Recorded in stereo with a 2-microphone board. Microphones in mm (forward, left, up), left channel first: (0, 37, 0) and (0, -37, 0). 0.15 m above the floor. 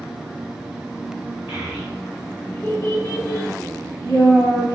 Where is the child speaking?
30° right (ahead or behind), 0.9 m; by 4.7 s 70° left (ahead or behind), 2.0 m.